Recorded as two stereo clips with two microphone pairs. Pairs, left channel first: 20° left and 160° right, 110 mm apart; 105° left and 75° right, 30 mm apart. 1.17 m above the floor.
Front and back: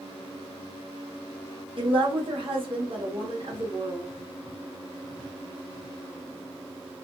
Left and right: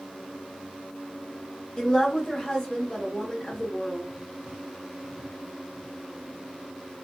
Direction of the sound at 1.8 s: 160° left.